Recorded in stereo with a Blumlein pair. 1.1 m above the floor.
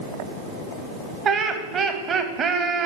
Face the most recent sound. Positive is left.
turn(degrees=-25)